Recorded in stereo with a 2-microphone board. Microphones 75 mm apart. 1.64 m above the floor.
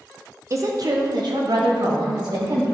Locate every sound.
0.5 s a woman speaking: 40° right (ahead or behind), 0.9 m; by 2.6 s 80° right, 3 m